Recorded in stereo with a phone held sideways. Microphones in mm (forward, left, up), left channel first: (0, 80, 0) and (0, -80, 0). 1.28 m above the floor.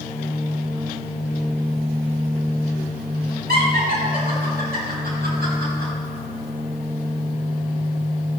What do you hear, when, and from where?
3.5 s laughter: 85° right, 4.5 m; by 5.9 s 90° right, 7.5 m